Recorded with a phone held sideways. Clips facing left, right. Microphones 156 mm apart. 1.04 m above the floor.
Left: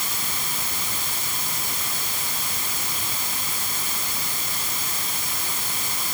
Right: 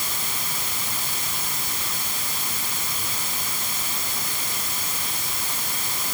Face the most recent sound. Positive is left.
No sound to turn to.